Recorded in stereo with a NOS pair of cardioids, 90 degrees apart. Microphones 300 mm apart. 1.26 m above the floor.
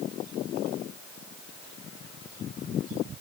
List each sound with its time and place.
Only background noise.